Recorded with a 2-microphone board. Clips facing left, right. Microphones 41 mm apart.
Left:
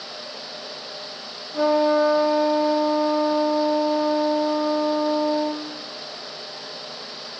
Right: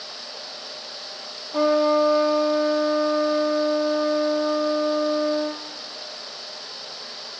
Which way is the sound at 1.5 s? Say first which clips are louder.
Even; 55° right (ahead or behind).